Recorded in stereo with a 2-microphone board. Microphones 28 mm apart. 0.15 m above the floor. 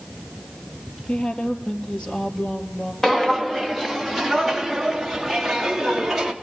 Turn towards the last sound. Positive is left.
turn(degrees=-10)  # may be behind; listen again after turning